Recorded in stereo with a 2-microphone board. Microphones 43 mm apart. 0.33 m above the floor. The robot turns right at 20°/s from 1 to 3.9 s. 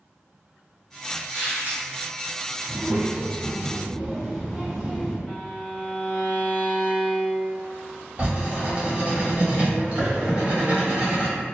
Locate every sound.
1.3 s a squeak: 55° right (ahead or behind), 1.6 m; by 1.8 s 45° right (ahead or behind), 1.6 m
2.7 s a child speaking: 30° right (ahead or behind), 1.6 m; by 5.2 s 10° right (ahead or behind), 1.6 m
5.3 s a violin: 30° left (ahead or behind), 1.2 m
8.2 s writing: 30° right (ahead or behind), 1.3 m